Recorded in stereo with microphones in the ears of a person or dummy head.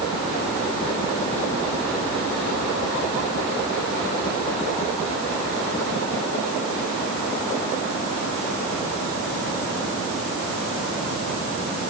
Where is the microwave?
I don't hear a microwave.